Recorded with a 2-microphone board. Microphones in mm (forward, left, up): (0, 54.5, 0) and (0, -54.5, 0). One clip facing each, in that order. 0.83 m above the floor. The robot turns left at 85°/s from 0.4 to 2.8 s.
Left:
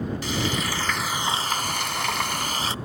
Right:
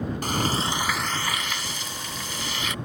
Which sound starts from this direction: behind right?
Frying, at 0.2 s.